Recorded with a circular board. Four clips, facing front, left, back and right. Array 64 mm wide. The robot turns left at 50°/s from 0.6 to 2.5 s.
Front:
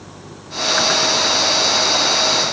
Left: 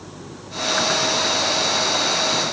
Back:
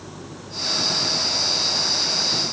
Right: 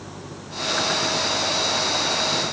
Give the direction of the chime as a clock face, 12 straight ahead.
No chime in this recording.